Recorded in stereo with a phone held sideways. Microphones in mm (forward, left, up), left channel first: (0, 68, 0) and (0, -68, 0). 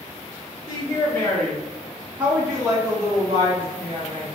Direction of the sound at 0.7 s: 25° left (ahead or behind).